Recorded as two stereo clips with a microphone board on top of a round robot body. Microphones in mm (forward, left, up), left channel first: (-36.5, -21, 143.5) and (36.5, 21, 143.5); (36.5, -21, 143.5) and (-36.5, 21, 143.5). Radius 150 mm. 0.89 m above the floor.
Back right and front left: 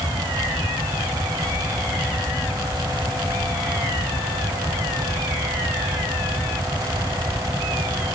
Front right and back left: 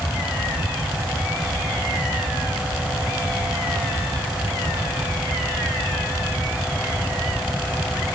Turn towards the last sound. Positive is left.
No sound to turn to.